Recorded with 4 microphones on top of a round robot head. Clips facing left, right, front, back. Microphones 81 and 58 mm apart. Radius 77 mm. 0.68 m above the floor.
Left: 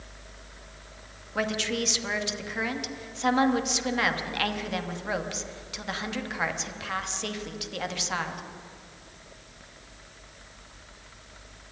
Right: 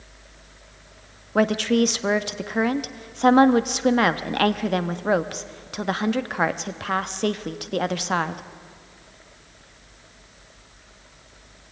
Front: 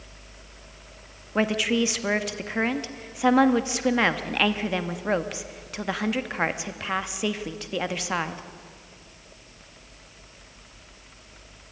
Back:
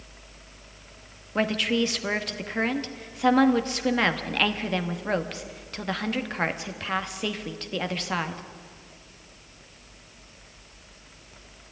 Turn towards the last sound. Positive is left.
turn(degrees=-80)